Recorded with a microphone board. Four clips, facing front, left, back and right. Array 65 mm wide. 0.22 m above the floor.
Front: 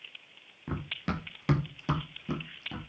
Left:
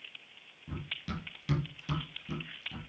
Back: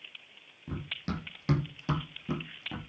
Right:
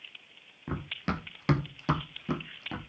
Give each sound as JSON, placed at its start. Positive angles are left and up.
{"t": 0.7, "sound": "running footsteps", "azimuth_deg": -60, "distance_m": 2.0}